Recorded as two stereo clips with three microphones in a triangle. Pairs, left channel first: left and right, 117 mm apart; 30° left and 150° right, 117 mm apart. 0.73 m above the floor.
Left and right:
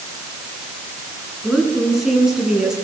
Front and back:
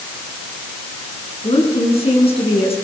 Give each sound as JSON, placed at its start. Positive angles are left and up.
{"t": 1.4, "sound": "a woman speaking", "azimuth_deg": -5, "distance_m": 9.0}